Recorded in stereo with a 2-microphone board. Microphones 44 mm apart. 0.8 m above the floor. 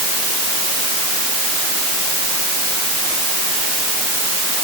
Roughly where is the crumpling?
No crumpling in this recording.